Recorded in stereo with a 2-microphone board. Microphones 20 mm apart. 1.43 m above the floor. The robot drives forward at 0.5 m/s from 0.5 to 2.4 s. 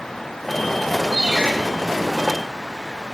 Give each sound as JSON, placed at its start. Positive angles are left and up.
{"t": 1.1, "sound": "a ringtone", "side_deg": -70, "distance_m": 3.5}